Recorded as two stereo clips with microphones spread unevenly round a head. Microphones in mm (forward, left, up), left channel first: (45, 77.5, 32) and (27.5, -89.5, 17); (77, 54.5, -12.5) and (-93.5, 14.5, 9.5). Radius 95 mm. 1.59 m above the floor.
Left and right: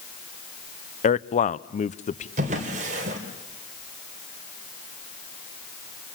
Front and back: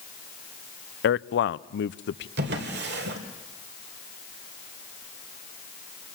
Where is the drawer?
150° right, 2.5 m.